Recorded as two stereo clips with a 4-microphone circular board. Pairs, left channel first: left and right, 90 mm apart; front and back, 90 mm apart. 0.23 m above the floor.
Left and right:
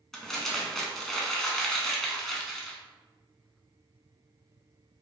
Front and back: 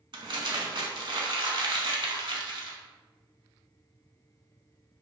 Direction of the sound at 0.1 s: 175° left.